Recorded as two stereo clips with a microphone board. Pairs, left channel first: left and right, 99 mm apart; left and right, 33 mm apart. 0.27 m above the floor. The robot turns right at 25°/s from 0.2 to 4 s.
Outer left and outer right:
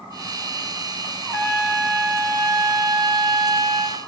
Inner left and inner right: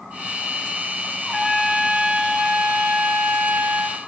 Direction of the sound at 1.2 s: 175° left.